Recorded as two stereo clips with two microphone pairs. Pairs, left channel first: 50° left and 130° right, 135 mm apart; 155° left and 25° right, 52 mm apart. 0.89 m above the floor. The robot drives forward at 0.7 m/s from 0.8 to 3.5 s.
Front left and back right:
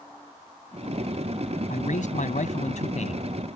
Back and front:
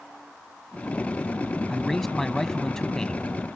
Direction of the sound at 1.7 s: 70° left.